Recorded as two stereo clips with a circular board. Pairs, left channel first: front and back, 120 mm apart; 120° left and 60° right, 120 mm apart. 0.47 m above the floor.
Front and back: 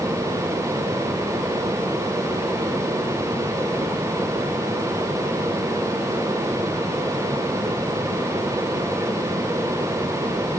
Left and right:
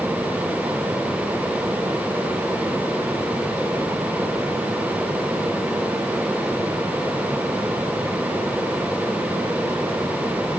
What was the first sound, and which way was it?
Only background noise.